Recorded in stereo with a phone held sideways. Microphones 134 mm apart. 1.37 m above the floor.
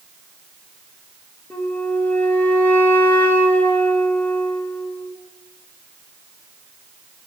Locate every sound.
1.5 s a flute: 15° left (ahead or behind), 1.4 m